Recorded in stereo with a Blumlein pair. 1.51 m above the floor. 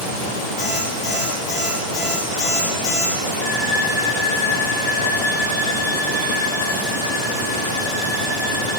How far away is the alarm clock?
About 4 m.